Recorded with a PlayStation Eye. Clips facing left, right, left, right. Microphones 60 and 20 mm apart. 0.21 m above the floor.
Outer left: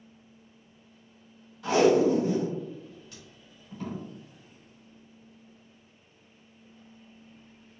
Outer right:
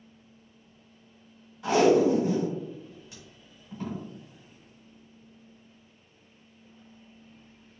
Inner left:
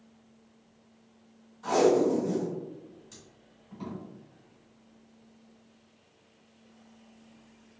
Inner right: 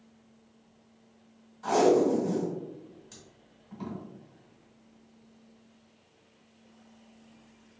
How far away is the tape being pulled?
About 1.5 m.